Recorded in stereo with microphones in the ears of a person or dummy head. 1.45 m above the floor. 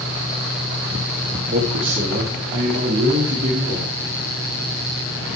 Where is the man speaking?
40° right (ahead or behind), 1.4 m.